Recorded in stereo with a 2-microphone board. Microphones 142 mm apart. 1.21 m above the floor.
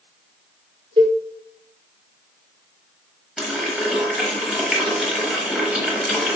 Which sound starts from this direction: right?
A cowbell, at 1.0 s.